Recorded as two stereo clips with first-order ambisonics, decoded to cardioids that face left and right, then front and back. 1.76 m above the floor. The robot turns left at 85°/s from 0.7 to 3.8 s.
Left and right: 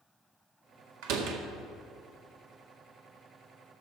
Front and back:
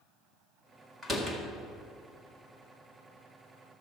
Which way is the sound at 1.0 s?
95° right.